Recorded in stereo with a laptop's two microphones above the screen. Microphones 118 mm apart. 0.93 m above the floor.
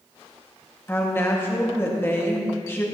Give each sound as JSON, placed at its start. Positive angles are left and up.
{"t": 0.9, "sound": "a woman speaking", "side_deg": 20, "distance_m": 1.7}